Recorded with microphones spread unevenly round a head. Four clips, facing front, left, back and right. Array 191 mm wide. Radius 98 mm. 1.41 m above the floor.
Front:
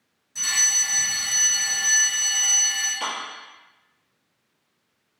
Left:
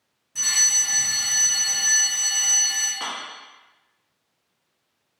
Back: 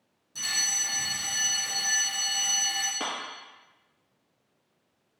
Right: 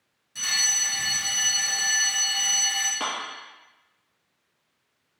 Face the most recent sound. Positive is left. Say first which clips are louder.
# right 2 dB, front 4 dB
turn(degrees=-145)